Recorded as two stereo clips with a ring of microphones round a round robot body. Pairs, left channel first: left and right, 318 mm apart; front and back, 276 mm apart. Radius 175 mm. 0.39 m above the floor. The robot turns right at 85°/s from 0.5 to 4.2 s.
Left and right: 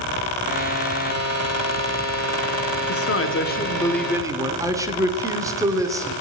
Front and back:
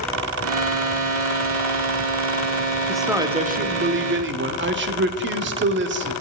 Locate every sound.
2.9 s a man speaking: 85° left, 1.0 m; by 6.1 s 165° right, 1.0 m